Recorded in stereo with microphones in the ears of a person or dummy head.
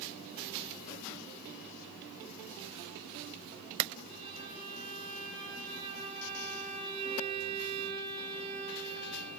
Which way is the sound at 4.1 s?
30° right (ahead or behind).